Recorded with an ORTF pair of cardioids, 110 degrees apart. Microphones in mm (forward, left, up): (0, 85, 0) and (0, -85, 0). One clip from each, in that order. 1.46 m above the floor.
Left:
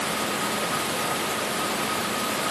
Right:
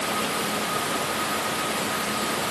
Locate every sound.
Only background noise.